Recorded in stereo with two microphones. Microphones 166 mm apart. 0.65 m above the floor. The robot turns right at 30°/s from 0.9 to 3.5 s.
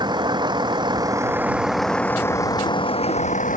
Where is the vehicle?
25° right; by 3.6 s 50° left.